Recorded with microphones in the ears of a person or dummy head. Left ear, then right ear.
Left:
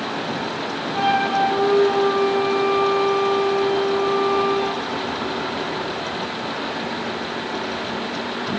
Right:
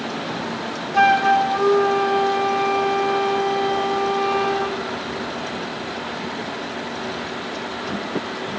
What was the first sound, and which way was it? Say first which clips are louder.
A flute: right 4 dB; 50° right (ahead or behind).